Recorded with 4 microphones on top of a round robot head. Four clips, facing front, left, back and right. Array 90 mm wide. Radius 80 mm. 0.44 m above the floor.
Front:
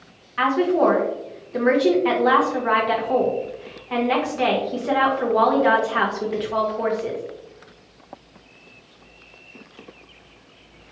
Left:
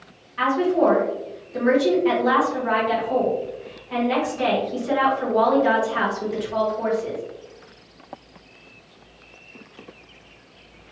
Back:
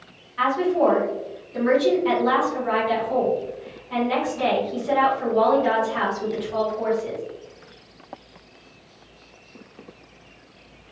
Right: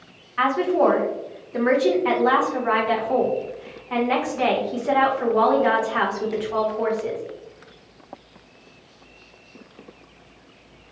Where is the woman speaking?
40° right, 1.4 m.